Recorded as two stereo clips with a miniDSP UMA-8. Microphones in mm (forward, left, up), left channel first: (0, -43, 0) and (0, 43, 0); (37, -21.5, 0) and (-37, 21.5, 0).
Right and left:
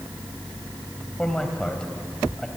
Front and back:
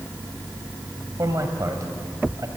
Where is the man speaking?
170° right, 2.5 m.